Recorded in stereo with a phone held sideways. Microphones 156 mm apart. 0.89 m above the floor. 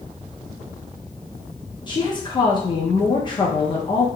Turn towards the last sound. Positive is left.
turn(degrees=30)  # may be behind; listen again after turning